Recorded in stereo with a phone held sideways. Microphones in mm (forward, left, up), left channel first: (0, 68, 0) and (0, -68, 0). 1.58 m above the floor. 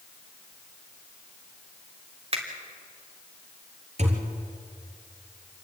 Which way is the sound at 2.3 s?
45° right (ahead or behind).